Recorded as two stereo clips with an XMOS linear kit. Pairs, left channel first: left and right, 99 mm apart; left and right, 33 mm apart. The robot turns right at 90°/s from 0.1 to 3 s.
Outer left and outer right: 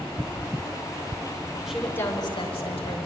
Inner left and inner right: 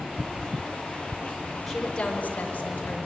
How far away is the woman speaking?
About 5 m.